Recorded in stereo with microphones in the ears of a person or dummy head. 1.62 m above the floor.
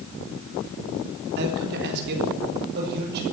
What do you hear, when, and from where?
1.4 s a man speaking: 55° right (ahead or behind), 3.5 m